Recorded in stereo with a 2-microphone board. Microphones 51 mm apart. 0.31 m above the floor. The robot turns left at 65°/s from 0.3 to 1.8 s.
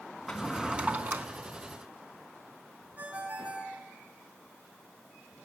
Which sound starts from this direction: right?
A ringtone, at 3.0 s.